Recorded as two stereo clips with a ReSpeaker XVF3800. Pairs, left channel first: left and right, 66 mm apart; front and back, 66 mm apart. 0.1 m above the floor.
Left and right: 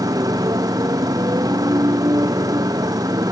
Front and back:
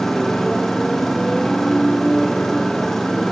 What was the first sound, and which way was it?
A motorcycle, 85° right.